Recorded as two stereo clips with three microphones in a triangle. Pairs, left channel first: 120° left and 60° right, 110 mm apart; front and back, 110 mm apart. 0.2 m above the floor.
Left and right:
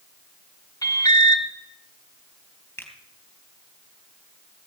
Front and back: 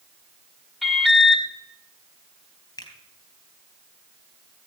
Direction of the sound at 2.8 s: 50° left.